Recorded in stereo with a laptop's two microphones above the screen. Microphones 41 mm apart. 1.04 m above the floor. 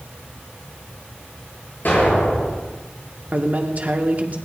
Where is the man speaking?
40° right (ahead or behind), 2 m.